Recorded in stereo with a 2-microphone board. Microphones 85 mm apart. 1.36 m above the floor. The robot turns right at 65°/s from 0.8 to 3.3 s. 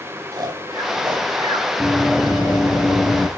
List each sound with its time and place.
0.3 s snoring: 55° right (ahead or behind), 3.5 m; by 1.7 s 65° right (ahead or behind), 3.5 m
1.8 s running footsteps: 5° right (ahead or behind), 1.7 m; by 3.3 s 10° left (ahead or behind), 1.4 m